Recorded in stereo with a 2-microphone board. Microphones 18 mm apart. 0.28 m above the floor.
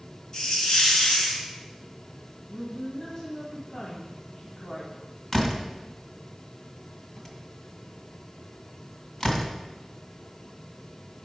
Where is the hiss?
40° left (ahead or behind), 2 m.